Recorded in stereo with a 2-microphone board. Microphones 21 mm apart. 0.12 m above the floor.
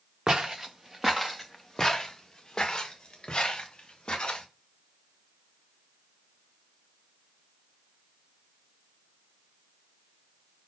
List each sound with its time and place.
0.3 s footsteps: 40° right (ahead or behind), 0.9 m; by 4.5 s 45° left (ahead or behind), 2 m